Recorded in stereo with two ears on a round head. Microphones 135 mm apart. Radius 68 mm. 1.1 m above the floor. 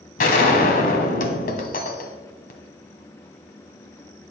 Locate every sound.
0.2 s a gunshot: 55° left (ahead or behind), 1.7 m